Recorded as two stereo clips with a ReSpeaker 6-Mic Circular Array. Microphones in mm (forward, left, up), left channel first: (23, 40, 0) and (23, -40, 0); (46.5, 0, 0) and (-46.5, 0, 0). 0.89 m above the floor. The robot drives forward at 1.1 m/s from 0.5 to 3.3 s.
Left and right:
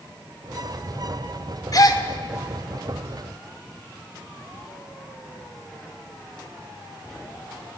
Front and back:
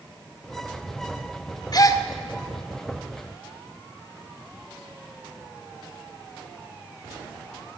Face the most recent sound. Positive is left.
turn(degrees=115)